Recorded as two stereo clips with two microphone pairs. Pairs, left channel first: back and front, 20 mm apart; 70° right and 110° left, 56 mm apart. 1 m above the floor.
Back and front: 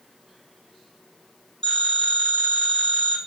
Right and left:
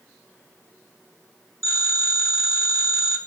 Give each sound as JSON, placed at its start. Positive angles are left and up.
{"t": 1.6, "sound": "a phone ringing", "azimuth_deg": 135, "distance_m": 4.5}